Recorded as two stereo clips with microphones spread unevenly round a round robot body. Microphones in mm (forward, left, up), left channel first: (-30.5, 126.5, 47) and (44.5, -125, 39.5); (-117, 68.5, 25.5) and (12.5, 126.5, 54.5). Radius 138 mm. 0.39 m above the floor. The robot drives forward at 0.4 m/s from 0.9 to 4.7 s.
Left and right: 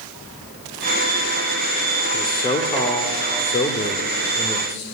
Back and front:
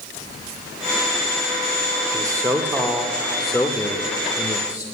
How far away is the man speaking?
About 1.0 m.